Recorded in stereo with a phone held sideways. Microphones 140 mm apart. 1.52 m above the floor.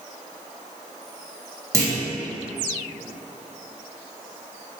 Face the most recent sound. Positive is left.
turn(degrees=-20)  # may be behind; listen again after turning